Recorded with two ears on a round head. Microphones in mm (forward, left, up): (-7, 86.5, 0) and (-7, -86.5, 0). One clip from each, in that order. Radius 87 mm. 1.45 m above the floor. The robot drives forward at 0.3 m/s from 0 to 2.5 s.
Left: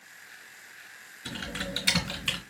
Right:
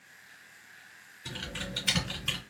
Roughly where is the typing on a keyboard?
Left.